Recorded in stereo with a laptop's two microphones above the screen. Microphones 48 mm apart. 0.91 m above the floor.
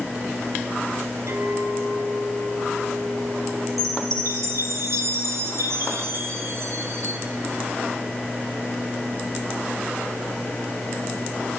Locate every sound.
1.3 s a clink: 75° right (ahead or behind), 3.5 m
3.8 s a chime: 75° right (ahead or behind), 4 m